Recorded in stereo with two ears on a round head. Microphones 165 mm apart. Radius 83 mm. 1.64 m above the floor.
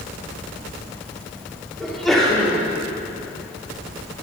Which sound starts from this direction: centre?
A sneeze, at 1.8 s.